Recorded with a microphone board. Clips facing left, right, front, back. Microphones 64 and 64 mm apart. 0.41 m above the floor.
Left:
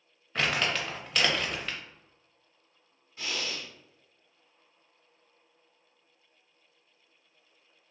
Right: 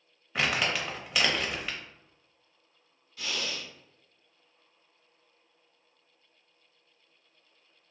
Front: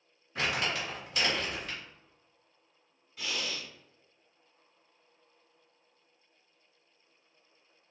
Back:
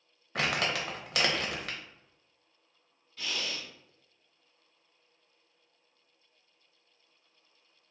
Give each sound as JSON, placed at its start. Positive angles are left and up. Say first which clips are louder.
{"t": 0.3, "sound": "crumpling", "louder": "even, back 1 dB", "azimuth_deg": -175, "distance_m": 0.6}
{"t": 3.2, "sound": "breathing", "louder": "even, even", "azimuth_deg": 70, "distance_m": 0.9}